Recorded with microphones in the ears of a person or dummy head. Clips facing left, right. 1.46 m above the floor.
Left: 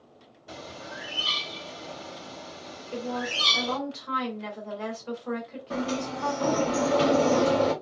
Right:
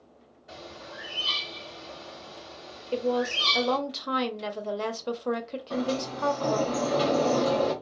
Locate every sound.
0.5 s a bird: 50° left (ahead or behind), 1.1 m
2.9 s a woman speaking: 60° right (ahead or behind), 0.6 m
5.7 s a sliding door: 25° left (ahead or behind), 1.0 m